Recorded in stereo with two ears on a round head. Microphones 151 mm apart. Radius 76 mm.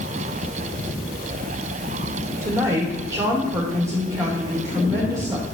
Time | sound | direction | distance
2.4 | a woman speaking | 20° right (ahead or behind) | 3 m